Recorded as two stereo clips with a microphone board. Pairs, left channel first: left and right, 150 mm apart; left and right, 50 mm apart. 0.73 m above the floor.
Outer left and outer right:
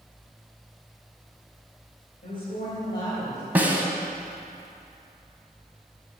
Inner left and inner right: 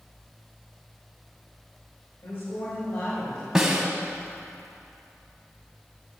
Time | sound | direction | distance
2.2 | a woman speaking | 65° left (ahead or behind) | 3 m
3.5 | a snare drum | 10° right (ahead or behind) | 1.1 m